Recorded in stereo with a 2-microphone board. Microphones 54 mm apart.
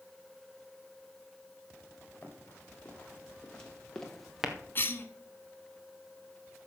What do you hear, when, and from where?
2.2 s running footsteps: 30° left (ahead or behind), 4.5 m; by 4.5 s 10° right (ahead or behind), 1.8 m
4.8 s a cough: 45° left (ahead or behind), 1.4 m